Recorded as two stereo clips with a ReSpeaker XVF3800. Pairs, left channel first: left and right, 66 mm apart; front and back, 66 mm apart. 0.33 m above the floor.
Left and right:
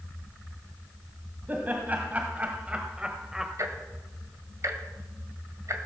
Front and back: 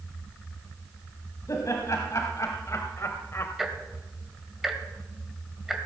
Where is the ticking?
95° right, 1.7 m.